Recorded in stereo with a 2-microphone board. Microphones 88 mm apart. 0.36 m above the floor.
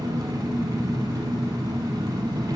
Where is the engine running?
45° right (ahead or behind), 0.9 m.